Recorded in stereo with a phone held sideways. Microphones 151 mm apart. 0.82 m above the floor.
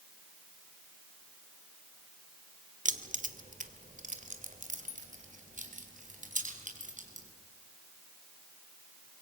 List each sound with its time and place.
2.9 s keys jangling: 55° right (ahead or behind), 1.2 m